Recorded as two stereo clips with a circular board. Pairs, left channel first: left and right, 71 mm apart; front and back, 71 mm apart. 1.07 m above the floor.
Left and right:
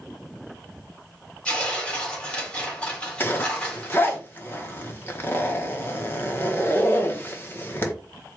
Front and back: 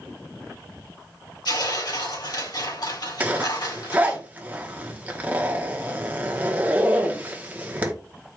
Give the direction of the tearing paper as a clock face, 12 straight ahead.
12 o'clock.